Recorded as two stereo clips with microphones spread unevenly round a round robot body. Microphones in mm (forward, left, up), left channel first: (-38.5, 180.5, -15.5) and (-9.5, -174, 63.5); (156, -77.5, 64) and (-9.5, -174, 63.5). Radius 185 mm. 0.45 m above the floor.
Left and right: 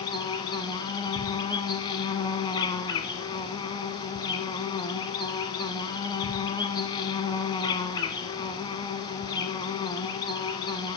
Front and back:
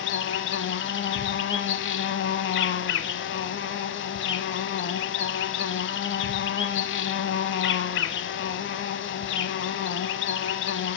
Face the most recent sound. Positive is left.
turn(degrees=10)